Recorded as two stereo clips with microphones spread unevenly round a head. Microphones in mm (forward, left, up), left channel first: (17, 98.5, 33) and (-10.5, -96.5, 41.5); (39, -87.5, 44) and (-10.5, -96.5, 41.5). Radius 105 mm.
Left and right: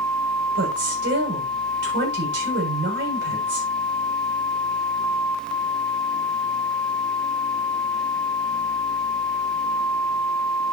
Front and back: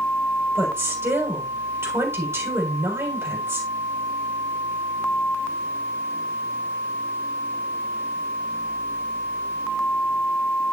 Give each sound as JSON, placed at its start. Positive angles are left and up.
{"t": 0.6, "sound": "a woman speaking", "azimuth_deg": -135, "distance_m": 7.5}